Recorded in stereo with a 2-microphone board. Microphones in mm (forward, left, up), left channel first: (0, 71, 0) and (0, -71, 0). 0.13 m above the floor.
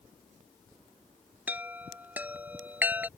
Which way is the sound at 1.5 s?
10° right (ahead or behind).